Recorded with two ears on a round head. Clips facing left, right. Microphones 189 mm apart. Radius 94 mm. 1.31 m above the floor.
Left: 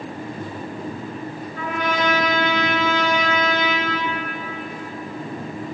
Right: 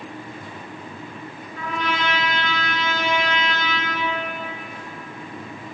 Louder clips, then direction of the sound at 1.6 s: Left 3 dB; 40° left (ahead or behind).